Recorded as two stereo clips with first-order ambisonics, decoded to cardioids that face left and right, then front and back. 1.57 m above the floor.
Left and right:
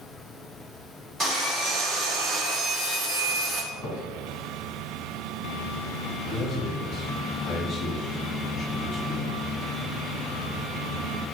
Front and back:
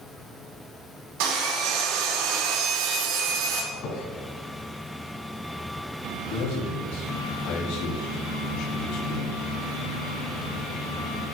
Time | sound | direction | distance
1.2 | sawing | 170° right | 2.5 m
3.7 | a squeak | 30° left | 3 m
6.3 | a man speaking | 10° left | 2 m